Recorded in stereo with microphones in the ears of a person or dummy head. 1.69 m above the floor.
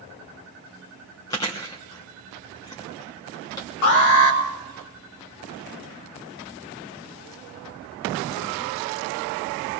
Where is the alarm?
65° left (ahead or behind), 2.5 m.